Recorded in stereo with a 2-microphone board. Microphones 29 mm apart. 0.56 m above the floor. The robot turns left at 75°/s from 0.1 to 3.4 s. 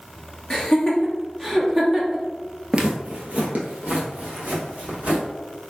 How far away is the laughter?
About 1.0 m.